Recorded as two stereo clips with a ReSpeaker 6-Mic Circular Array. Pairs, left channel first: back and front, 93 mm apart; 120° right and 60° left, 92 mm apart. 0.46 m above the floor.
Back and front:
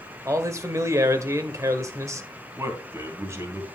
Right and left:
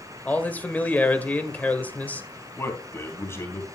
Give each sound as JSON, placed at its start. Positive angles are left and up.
{"t": 0.2, "sound": "a man speaking", "azimuth_deg": -50, "distance_m": 1.4}
{"t": 2.6, "sound": "a man speaking", "azimuth_deg": -60, "distance_m": 3.0}